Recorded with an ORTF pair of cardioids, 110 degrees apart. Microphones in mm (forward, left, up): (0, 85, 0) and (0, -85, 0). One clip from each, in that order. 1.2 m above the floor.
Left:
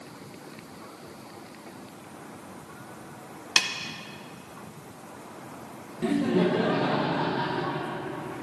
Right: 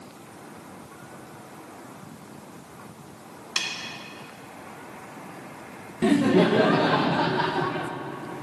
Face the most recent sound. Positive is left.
turn(degrees=-30)